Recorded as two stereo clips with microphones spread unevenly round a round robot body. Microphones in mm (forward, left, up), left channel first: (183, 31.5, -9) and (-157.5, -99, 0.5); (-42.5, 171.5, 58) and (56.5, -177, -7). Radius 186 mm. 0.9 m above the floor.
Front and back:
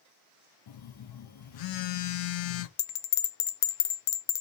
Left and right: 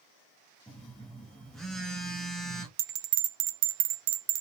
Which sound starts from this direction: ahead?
A phone buzzing, at 0.7 s.